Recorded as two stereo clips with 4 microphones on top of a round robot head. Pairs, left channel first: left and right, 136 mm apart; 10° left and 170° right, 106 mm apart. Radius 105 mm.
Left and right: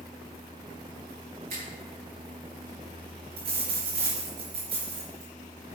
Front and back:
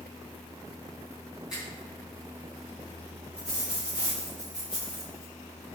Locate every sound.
1.5 s a finger snap: 85° right, 5.5 m
3.4 s a dropped coin: 90° right, 4.5 m